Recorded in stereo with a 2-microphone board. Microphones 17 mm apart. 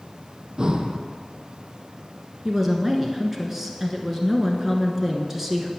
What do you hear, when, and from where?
0.6 s breathing: 45° right (ahead or behind), 0.7 m
2.5 s a woman speaking: 15° right (ahead or behind), 1.1 m